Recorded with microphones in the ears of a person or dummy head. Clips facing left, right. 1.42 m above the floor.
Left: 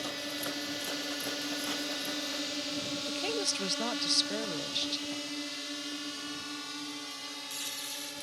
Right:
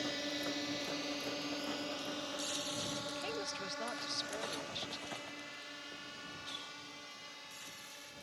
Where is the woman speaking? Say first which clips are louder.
Left 7 dB; 60° left (ahead or behind).